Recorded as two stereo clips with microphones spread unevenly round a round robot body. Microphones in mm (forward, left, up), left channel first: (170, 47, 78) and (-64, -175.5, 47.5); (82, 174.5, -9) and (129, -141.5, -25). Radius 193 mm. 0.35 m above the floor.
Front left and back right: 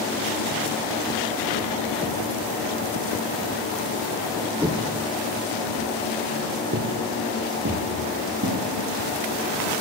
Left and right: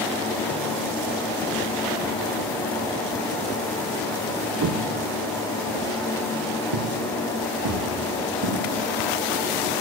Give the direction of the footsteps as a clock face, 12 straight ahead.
2 o'clock.